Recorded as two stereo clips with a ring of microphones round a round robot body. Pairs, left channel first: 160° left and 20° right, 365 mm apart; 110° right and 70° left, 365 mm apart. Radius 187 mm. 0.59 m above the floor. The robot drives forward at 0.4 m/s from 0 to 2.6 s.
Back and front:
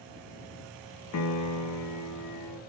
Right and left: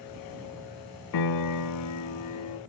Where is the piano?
150° right, 0.8 m; by 2.6 s 165° right, 1.3 m.